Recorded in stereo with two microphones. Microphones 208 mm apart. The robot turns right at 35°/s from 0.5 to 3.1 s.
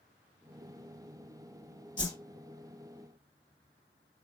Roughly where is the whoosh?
Left.